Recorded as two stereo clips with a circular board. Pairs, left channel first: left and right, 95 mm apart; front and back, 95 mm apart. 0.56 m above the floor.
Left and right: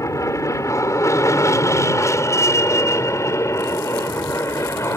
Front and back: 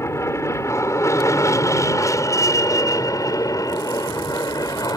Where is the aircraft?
50° left; by 5.0 s 35° left.